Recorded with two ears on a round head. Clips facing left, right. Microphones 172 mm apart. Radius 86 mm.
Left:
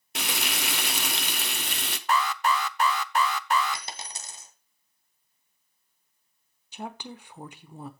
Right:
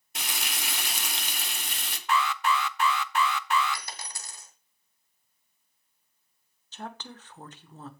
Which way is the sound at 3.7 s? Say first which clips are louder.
Left 1 dB; 20° left (ahead or behind).